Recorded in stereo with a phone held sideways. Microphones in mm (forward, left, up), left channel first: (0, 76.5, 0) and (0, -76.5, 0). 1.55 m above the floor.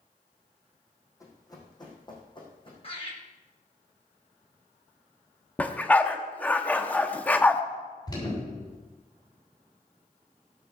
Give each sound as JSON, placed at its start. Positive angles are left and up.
{"t": 1.2, "sound": "running footsteps", "side_deg": 20, "distance_m": 4.5}
{"t": 2.8, "sound": "laughter", "side_deg": 40, "distance_m": 6.5}
{"t": 5.6, "sound": "a dog barking", "side_deg": 10, "distance_m": 1.0}
{"t": 8.1, "sound": "an alarm", "side_deg": 25, "distance_m": 7.0}